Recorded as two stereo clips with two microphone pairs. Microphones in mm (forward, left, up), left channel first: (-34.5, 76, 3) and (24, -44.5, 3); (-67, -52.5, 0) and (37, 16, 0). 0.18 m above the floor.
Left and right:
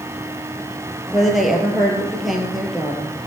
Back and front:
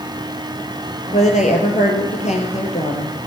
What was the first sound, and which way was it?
A woman speaking, 155° right.